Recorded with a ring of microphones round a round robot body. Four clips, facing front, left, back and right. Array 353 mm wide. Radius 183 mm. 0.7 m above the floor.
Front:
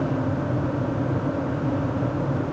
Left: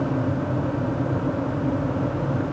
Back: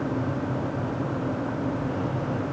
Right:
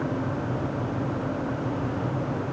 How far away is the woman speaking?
I don't hear a woman speaking.